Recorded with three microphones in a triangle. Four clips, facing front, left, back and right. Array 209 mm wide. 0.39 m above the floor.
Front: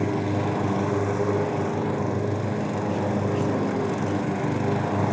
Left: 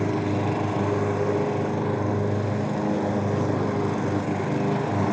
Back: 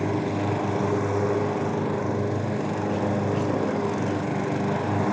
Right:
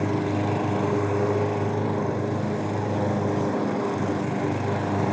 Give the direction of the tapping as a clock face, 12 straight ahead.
I don't hear tapping.